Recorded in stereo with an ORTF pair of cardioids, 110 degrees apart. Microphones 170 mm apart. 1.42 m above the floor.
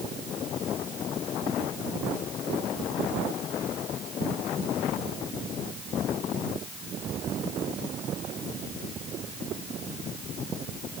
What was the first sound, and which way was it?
Only background noise.